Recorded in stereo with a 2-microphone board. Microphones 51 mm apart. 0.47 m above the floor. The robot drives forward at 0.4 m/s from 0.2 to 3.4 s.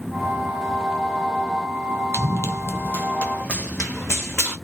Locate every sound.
2.1 s running footsteps: 50° left (ahead or behind), 0.7 m; by 4.5 s 10° left (ahead or behind), 1.6 m